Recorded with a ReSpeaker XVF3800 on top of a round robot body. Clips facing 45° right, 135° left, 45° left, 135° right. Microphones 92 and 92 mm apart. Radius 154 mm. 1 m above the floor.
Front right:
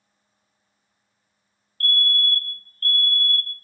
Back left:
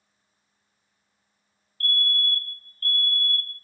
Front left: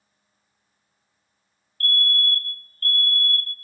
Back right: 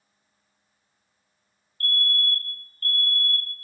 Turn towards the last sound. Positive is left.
turn(degrees=-70)